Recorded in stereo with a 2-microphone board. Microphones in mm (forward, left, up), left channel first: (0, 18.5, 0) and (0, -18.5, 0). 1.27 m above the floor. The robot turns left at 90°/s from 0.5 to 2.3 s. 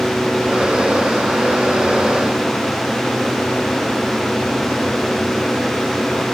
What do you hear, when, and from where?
Only background noise.